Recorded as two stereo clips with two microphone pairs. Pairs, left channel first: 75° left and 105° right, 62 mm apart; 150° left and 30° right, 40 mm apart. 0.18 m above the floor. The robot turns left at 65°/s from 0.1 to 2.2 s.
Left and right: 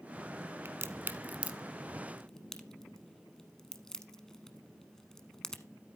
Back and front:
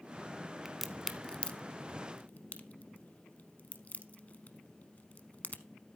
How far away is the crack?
About 0.8 m.